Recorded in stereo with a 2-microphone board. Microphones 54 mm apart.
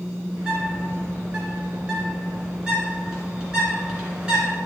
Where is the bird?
15° right (ahead or behind), 2.5 m.